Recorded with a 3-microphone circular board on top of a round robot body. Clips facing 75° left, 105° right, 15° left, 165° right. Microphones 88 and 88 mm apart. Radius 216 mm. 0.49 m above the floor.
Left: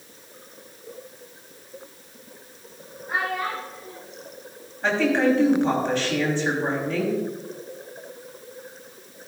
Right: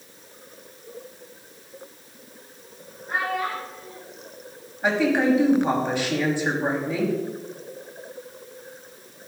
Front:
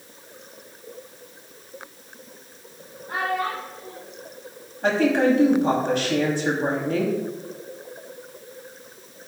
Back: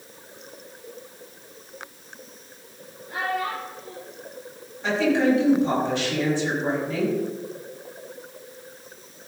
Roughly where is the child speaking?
Ahead.